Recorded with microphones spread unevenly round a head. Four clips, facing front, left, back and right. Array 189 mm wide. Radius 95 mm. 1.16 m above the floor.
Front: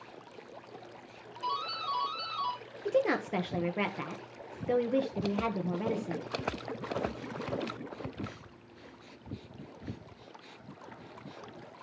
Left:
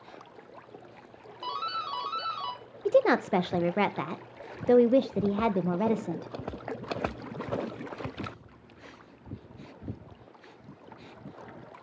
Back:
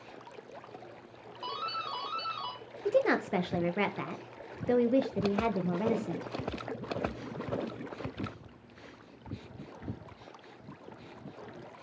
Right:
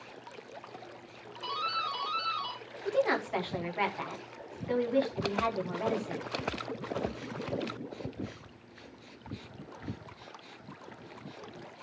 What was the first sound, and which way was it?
A doorbell, 145° left.